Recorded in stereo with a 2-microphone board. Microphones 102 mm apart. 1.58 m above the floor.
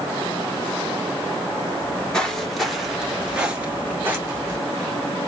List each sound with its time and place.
1.8 s footsteps: 10° left (ahead or behind), 1.7 m; by 4.6 s 30° right (ahead or behind), 1.7 m